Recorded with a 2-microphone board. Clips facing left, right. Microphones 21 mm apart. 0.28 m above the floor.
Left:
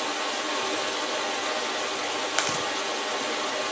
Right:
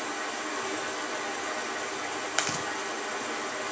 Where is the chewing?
10° left (ahead or behind), 0.9 m.